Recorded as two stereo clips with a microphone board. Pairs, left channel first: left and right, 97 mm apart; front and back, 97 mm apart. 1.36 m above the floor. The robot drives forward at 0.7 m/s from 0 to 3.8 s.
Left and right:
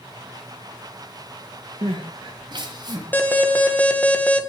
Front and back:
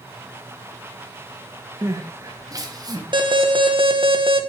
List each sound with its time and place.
1.8 s crying: 120° right, 2.5 m; by 3.0 s 135° right, 3 m
3.1 s an alarm: 160° left, 1.9 m; by 4.4 s 165° left, 2.5 m